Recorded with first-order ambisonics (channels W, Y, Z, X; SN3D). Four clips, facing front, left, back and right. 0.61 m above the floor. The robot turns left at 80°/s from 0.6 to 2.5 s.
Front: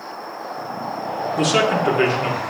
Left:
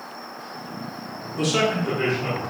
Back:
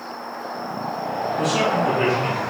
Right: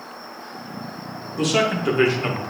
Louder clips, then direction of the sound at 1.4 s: Right 1 dB, front 3 dB; straight ahead.